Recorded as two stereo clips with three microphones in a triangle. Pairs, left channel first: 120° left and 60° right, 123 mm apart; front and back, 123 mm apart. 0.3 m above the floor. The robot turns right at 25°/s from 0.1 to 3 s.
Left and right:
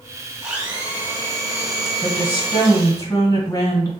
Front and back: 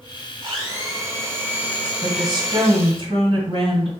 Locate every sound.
0.4 s a blender: 140° right, 1.3 m; by 3.0 s 75° right, 1.3 m
2.0 s a woman speaking: 145° left, 1.9 m; by 3.9 s 170° left, 1.9 m